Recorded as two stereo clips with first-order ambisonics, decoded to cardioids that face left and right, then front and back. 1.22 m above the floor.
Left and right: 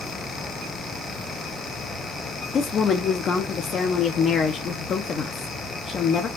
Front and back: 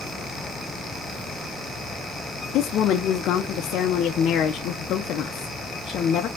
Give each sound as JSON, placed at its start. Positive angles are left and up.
{"t": 2.5, "sound": "a woman speaking", "azimuth_deg": 40, "distance_m": 0.6}